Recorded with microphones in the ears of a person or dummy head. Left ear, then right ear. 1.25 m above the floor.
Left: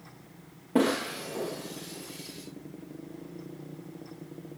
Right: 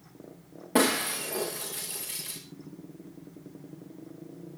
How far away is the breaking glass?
About 6 m.